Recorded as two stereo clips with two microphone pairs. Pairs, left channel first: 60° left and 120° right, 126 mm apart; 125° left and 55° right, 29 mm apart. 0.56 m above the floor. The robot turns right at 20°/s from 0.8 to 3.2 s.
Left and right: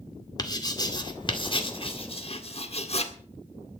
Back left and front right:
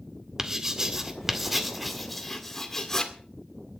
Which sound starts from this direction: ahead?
Writing, at 0.4 s.